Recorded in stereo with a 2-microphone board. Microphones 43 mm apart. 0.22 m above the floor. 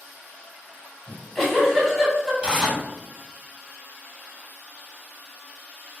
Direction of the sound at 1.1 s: 5° left (ahead or behind).